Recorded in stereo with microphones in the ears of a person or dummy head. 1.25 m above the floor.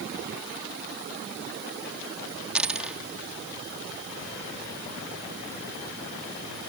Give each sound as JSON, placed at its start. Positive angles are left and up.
{"t": 2.5, "sound": "a dropped coin", "side_deg": -5}